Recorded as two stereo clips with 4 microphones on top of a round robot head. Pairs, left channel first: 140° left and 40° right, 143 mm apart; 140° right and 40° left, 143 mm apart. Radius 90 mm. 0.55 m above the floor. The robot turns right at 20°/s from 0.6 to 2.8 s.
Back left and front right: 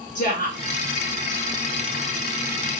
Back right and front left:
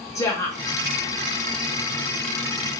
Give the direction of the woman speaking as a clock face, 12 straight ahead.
7 o'clock.